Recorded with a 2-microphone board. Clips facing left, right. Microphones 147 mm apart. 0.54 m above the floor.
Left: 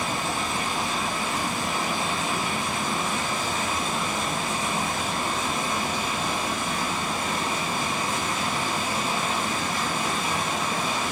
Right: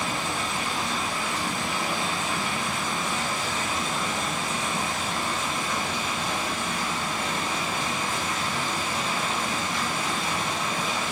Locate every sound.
0.0 s running water: 50° left (ahead or behind), 5.5 m